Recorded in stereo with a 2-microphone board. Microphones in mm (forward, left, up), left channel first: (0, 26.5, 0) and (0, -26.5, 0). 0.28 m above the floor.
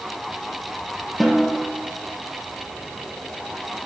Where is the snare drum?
Centre (ahead or behind), 4.5 m.